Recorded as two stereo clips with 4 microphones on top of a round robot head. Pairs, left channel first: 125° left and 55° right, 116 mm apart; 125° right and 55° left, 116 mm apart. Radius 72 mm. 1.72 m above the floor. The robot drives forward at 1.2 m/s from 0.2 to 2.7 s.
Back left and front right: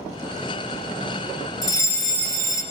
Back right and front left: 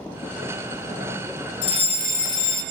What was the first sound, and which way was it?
A fire alarm, 175° right.